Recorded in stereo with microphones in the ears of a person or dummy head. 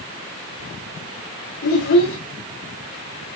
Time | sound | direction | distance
1.6 | a child speaking | 80° left | 3.5 m